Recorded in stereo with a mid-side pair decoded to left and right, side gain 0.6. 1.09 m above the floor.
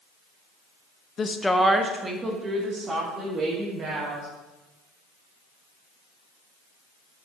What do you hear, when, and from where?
1.2 s a woman speaking: 35° left, 0.7 m; by 4.3 s 40° right, 4.5 m